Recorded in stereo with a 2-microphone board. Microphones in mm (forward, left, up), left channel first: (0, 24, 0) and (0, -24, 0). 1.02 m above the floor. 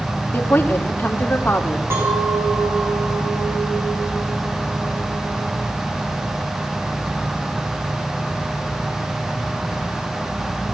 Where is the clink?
55° right (ahead or behind), 5 m.